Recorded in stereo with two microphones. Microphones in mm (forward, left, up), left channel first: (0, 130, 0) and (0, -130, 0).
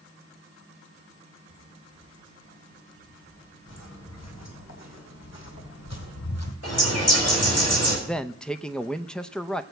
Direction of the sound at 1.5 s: 50° left (ahead or behind).